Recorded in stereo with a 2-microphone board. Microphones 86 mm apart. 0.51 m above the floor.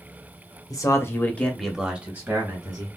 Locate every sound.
0.7 s a man speaking: 45° left (ahead or behind), 0.8 m; by 2.9 s 40° right (ahead or behind), 1.2 m